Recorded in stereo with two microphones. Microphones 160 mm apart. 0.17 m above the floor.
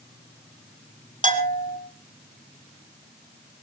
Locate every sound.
1.2 s a bell: 55° right (ahead or behind), 2.5 m